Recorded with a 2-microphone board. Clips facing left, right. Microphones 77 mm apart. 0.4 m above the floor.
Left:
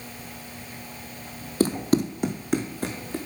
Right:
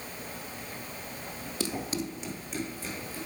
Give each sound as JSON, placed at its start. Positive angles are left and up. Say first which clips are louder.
{"t": 1.6, "sound": "running footsteps", "louder": "left 12 dB", "side_deg": 40, "distance_m": 0.5}